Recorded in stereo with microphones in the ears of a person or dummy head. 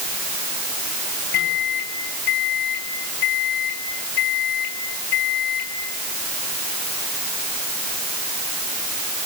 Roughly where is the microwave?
Left.